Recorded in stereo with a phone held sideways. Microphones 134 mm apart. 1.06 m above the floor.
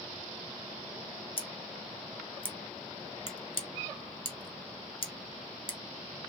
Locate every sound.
1.4 s scissors: 40° left (ahead or behind), 0.8 m